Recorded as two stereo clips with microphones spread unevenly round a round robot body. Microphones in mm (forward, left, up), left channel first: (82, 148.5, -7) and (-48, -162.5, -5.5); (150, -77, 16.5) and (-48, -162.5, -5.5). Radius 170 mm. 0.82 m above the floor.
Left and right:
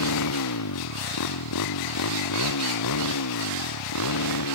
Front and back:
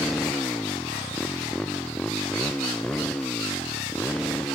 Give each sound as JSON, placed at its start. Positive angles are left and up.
{"t": 0.0, "sound": "a motorcycle", "azimuth_deg": 110}